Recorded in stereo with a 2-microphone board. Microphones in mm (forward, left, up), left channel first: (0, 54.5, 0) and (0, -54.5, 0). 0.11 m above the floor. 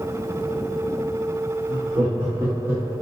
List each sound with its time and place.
1.7 s laughter: 15° right (ahead or behind), 3 m; by 2.9 s 25° right (ahead or behind), 4 m